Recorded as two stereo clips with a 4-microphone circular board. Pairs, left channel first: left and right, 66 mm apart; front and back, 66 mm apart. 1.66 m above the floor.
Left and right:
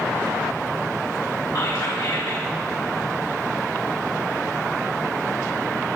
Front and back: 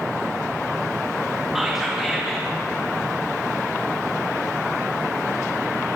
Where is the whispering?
95° left, 2 m.